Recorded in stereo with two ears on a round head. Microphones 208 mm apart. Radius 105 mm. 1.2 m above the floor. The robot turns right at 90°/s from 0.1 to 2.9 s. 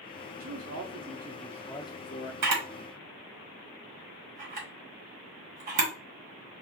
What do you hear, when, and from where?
0.4 s a man speaking: 115° right, 0.8 m; by 2.3 s 60° left, 0.8 m
2.4 s a camera shutter: 75° right (ahead or behind), 1.5 m; by 5.9 s 35° right (ahead or behind), 1.5 m